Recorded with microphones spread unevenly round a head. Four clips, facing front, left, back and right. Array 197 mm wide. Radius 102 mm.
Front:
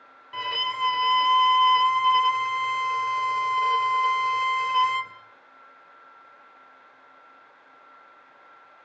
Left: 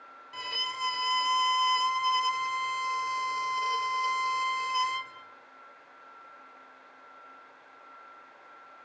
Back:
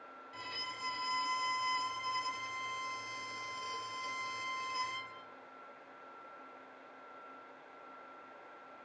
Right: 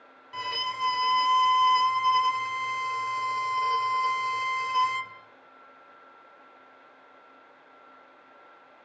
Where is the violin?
10° right, 2.0 m.